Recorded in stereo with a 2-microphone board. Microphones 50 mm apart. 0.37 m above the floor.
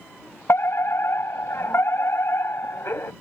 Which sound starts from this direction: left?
A fire alarm, at 0.5 s.